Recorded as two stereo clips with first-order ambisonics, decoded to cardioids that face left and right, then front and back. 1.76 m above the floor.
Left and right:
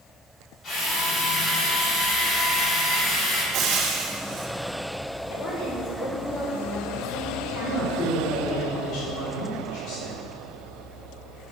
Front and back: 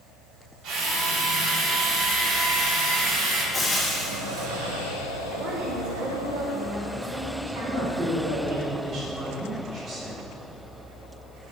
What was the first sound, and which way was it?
A drill, 145° left.